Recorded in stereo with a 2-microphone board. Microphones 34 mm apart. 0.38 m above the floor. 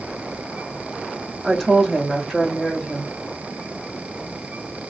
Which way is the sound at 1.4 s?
Centre (ahead or behind).